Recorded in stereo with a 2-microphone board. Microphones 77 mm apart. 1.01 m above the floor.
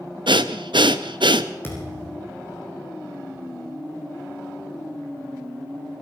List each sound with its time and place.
0.3 s breathing: 80° right, 0.8 m
1.6 s a thud: 30° left (ahead or behind), 5.5 m